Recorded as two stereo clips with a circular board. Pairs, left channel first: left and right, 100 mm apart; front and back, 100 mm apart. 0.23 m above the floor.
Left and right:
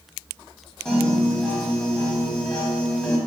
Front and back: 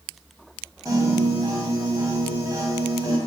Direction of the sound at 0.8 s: 170° left.